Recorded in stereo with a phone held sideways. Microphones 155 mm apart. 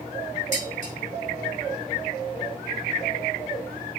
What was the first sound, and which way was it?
Dishes clattering, 50° right (ahead or behind).